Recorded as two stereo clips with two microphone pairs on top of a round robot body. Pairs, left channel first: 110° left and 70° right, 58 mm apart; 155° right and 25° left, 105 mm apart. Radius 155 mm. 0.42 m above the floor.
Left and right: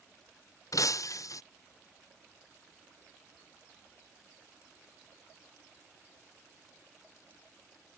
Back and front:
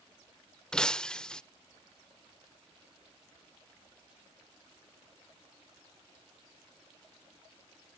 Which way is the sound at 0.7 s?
125° left.